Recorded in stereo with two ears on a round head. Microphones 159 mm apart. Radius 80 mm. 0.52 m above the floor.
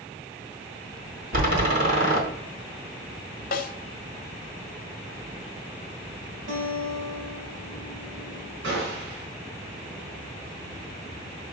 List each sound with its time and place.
1.3 s a door slam: 50° right (ahead or behind), 2 m
3.5 s a snare drum: 50° left (ahead or behind), 1.2 m
6.5 s a guitar: 60° right (ahead or behind), 2.5 m
8.6 s a gunshot: 75° right (ahead or behind), 3.5 m